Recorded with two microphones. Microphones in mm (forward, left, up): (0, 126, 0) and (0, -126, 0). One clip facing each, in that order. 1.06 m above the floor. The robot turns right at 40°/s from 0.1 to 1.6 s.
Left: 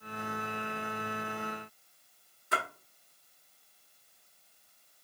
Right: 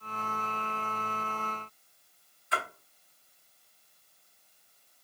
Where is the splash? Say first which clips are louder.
Left 1 dB; 45° left (ahead or behind), 1.4 m.